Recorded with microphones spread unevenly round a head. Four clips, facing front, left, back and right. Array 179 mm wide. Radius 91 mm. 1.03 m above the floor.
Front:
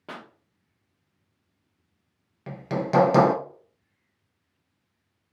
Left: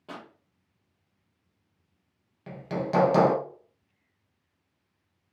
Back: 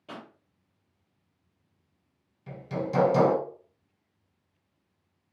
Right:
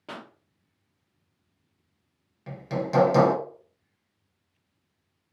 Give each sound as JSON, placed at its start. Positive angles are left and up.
{"t": 0.1, "sound": "a pop", "azimuth_deg": -20, "distance_m": 0.9}
{"t": 2.5, "sound": "hammering", "azimuth_deg": 0, "distance_m": 0.8}